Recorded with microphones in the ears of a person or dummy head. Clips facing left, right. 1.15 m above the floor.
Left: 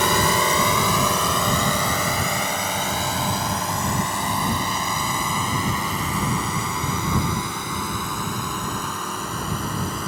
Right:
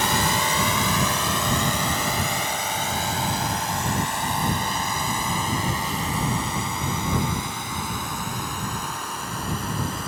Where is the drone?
80° left.